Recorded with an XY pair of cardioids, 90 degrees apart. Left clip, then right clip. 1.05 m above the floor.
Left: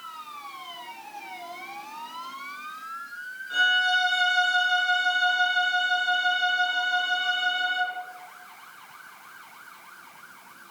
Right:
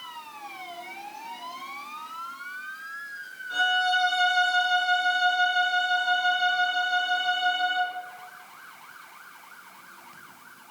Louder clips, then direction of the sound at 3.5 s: Left 2 dB; straight ahead.